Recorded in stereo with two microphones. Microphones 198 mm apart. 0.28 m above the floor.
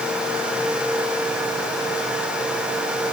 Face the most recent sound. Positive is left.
No sound to turn to.